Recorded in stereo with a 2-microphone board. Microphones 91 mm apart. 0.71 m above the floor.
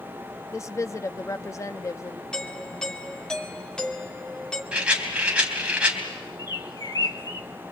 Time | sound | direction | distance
0.5 | a woman speaking | 35° left (ahead or behind) | 0.7 m
2.3 | a doorbell | 10° left (ahead or behind) | 2 m
4.7 | a rattle | 10° right (ahead or behind) | 3 m
6.4 | a bird | 45° left (ahead or behind) | 1.0 m